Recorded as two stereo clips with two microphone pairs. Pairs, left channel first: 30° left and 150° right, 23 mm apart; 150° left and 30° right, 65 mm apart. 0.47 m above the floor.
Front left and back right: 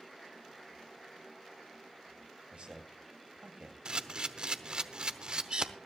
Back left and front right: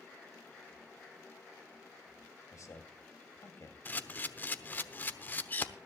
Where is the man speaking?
Straight behind, 2.5 m.